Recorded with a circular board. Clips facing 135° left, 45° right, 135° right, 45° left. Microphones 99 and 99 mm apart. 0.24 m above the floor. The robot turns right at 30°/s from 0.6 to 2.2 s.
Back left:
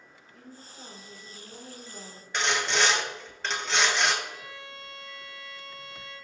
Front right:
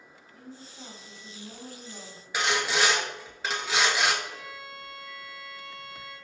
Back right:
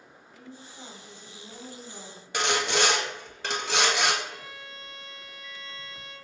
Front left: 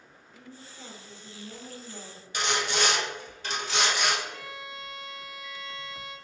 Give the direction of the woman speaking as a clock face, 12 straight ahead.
4 o'clock.